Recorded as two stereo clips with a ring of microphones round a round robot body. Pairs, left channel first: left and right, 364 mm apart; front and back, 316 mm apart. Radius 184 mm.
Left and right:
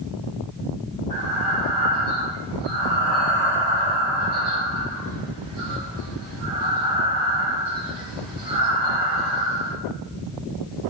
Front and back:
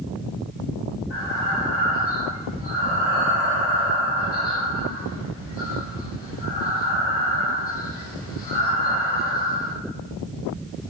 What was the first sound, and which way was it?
Breathing, 55° right.